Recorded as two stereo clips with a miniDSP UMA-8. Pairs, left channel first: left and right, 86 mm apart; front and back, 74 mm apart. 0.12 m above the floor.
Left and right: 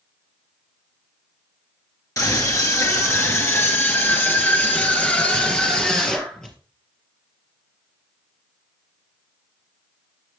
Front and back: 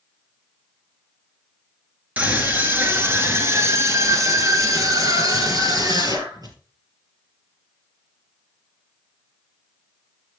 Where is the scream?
115° left, 2.5 m; by 6.5 s 175° left, 3.5 m.